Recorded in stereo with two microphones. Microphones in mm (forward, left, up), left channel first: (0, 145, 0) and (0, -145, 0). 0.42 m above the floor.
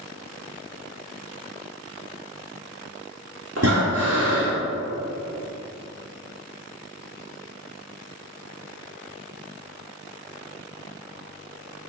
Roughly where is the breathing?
Right.